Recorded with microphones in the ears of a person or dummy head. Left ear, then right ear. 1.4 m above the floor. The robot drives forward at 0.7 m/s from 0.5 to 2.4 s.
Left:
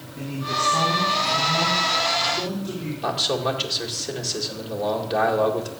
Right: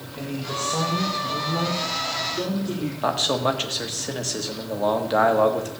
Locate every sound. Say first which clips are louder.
0.2 s a man speaking: left 4 dB; 15° right (ahead or behind), 2.5 m; by 2.9 s 10° right (ahead or behind), 3.5 m
3.0 s a man speaking: right 1 dB; 25° right (ahead or behind), 1.8 m